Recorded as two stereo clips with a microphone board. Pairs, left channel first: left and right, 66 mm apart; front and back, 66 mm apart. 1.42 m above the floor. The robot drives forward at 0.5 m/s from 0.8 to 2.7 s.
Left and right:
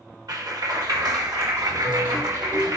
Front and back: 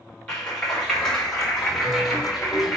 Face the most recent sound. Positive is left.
turn(degrees=-90)